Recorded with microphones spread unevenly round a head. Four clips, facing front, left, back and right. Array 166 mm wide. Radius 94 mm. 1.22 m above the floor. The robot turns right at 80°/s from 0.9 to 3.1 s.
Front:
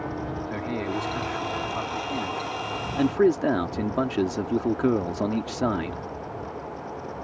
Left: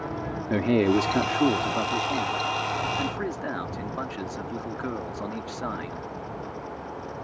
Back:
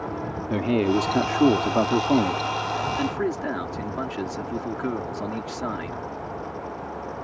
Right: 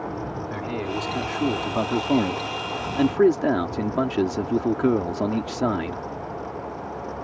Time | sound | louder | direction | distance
0.5 | a man speaking | left 10 dB, back 10 dB | 125° left | ?